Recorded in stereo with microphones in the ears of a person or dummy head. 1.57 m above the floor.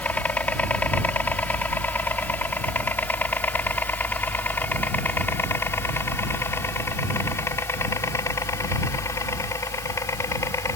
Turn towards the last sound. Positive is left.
turn(degrees=15)  # may be behind; listen again after turning